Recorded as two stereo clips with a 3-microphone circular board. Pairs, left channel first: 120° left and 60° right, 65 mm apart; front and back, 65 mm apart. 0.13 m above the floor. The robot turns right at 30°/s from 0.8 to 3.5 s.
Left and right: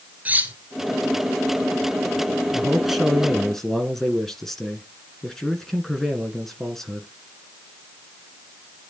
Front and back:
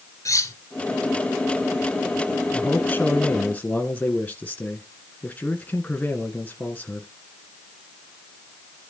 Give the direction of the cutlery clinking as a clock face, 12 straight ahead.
12 o'clock.